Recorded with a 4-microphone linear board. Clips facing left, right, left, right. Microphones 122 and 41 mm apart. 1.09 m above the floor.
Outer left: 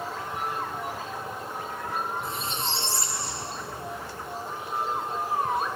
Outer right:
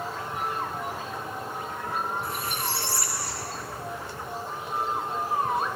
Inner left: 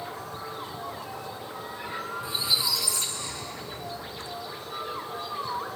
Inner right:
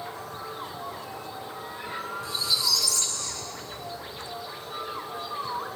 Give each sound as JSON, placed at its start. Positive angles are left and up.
{"t": 2.2, "sound": "a squeak", "side_deg": 25, "distance_m": 1.1}